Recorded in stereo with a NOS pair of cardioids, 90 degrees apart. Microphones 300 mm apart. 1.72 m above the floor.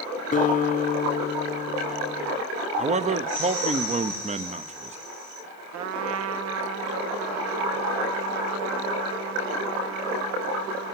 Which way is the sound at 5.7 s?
65° right.